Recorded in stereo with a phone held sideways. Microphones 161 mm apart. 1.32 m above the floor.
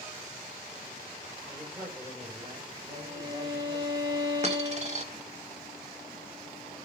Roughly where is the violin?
Right.